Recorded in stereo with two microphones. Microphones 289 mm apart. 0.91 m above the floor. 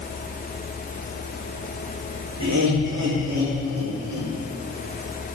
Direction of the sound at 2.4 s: 70° right (ahead or behind).